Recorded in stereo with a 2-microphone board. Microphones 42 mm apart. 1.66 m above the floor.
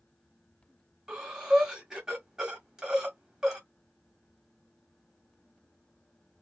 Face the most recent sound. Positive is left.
turn(degrees=-10)  # may be behind; listen again after turning